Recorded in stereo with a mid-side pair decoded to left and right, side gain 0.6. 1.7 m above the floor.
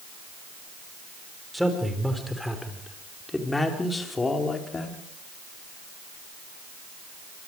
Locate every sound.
1.5 s a man speaking: straight ahead, 6.5 m; by 5.0 s 30° left, 4.5 m